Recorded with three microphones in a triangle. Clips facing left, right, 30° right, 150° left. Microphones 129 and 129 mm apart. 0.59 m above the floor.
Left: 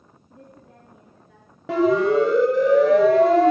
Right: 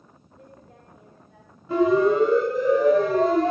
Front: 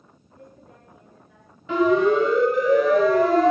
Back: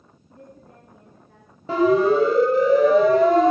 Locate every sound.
0.3 s a woman speaking: 105° left, 7 m
1.7 s a siren: 95° left, 4.5 m; by 3.5 s 80° left, 4.5 m